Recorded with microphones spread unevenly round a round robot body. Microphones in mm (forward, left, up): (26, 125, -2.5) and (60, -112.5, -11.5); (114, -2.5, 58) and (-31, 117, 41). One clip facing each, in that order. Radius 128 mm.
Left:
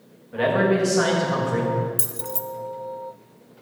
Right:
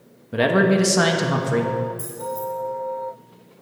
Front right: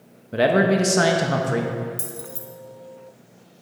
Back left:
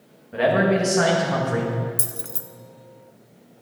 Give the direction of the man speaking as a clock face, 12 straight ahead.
3 o'clock.